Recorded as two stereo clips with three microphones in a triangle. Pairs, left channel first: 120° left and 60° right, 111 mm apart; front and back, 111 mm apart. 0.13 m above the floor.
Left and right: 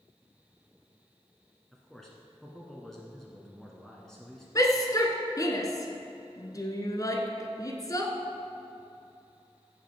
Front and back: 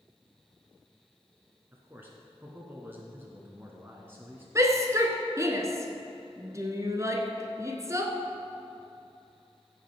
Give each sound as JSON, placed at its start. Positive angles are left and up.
{"t": 1.7, "sound": "a man speaking", "azimuth_deg": -160, "distance_m": 1.3}
{"t": 4.5, "sound": "a shout", "azimuth_deg": 145, "distance_m": 1.3}